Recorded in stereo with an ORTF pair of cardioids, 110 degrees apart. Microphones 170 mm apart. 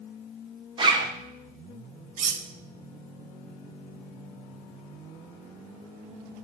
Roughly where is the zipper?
Ahead right.